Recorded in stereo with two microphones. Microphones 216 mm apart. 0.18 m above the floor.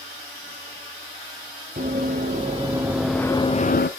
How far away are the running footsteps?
About 1.6 m.